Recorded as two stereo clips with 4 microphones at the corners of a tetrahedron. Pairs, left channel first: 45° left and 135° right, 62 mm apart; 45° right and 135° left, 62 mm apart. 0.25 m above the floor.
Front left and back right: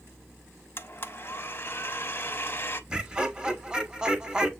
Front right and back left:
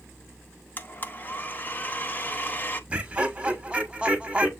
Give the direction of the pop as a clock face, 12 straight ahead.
No pop in this recording.